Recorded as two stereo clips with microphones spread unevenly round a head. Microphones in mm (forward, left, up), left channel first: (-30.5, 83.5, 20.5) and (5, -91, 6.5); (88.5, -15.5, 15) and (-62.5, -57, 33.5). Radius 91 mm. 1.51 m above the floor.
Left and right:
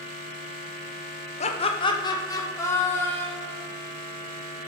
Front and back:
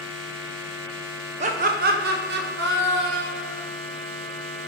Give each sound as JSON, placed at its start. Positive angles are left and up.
{"t": 1.4, "sound": "laughter", "azimuth_deg": 150, "distance_m": 0.9}